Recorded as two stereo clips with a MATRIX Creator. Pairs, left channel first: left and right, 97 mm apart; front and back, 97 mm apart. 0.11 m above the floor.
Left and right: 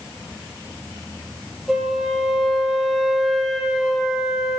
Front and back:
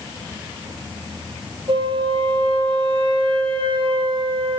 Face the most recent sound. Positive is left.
turn(degrees=-175)